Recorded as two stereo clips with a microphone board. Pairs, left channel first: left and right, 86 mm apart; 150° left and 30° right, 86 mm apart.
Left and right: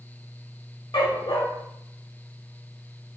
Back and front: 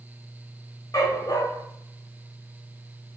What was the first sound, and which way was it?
A dog barking, 100° left.